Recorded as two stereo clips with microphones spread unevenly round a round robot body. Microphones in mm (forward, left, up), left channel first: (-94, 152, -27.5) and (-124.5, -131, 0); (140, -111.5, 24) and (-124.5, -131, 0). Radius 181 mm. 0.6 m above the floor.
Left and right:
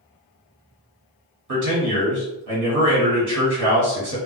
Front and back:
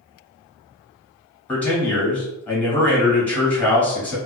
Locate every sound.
1.5 s a man speaking: 85° right, 1.5 m